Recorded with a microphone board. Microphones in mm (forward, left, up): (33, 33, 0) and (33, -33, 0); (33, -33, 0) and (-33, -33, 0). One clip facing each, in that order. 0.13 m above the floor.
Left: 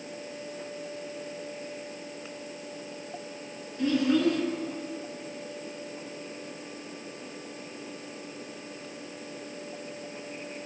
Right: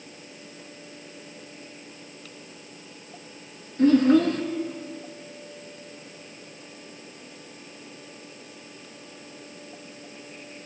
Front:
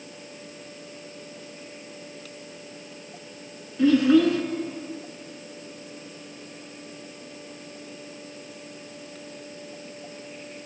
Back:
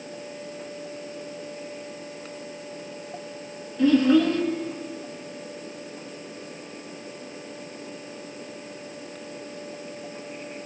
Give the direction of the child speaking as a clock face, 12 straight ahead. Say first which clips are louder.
Right 7 dB, front 1 dB; 3 o'clock.